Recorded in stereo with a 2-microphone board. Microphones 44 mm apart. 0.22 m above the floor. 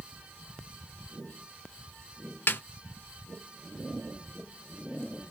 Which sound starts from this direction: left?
A snare drum, at 2.5 s.